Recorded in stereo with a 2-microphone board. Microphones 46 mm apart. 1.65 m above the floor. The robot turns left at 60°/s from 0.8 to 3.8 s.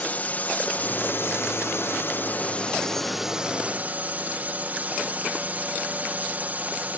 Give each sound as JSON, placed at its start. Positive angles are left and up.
{"t": 0.0, "sound": "a drone", "azimuth_deg": 140}